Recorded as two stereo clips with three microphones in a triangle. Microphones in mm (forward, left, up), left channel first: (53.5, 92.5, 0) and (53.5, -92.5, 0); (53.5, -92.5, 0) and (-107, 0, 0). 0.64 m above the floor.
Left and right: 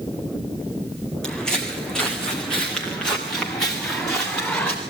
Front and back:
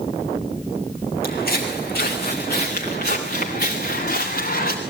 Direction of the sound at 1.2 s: 5° left.